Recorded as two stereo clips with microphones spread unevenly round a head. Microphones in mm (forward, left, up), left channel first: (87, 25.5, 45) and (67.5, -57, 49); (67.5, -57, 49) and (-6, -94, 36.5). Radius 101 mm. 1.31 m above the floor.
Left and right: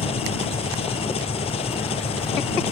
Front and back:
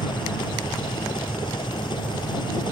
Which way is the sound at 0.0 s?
90° left.